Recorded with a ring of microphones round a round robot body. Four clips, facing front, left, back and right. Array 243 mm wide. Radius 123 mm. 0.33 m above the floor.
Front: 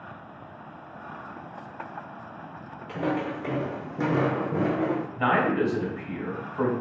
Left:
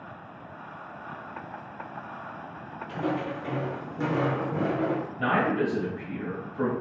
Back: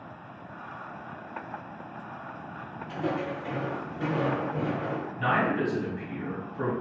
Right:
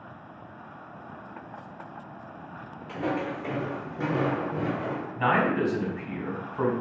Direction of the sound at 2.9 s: 15° right.